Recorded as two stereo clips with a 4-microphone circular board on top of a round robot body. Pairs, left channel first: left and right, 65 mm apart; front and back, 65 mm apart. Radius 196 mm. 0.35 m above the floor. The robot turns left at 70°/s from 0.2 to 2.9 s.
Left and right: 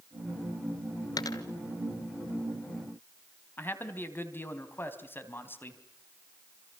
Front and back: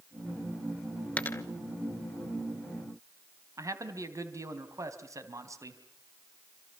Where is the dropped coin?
65° left, 1.1 m; by 1.4 s 50° left, 1.1 m.